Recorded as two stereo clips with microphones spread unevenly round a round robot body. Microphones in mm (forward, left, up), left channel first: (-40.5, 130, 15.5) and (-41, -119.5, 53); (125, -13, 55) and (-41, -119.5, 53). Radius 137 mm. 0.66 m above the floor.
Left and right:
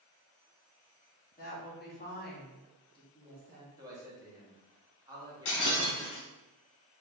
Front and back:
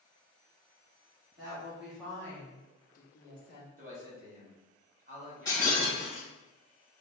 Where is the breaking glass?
110° left, 1.6 m.